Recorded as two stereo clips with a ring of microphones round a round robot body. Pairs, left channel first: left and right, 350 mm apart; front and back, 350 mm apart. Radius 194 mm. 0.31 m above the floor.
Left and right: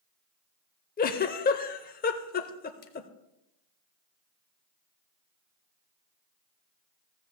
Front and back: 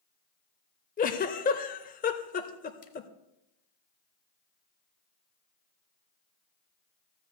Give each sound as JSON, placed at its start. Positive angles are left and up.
{"t": 1.0, "sound": "a giggle", "azimuth_deg": 45, "distance_m": 0.5}